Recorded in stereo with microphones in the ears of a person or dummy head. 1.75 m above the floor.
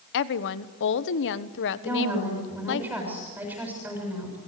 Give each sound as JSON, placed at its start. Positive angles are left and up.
{"t": 0.1, "sound": "a woman speaking", "side_deg": 70, "distance_m": 1.3}
{"t": 1.8, "sound": "a woman speaking", "side_deg": -10, "distance_m": 7.5}